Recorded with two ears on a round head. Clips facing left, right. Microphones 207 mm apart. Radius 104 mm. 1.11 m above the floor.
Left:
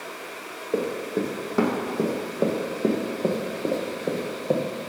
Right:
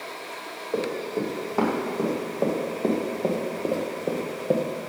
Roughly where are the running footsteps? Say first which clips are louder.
Left 1 dB; left.